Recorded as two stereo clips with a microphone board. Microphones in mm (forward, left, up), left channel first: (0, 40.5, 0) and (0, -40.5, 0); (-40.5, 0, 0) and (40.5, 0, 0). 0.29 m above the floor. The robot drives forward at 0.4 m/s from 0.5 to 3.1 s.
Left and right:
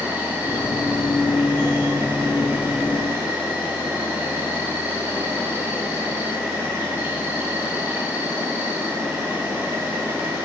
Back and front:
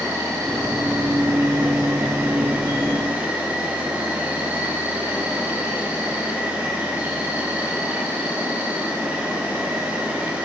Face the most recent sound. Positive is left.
turn(degrees=-50)